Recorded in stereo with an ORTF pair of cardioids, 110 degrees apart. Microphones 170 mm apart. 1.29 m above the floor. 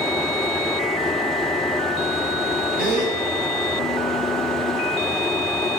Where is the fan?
Straight ahead, 3.5 m.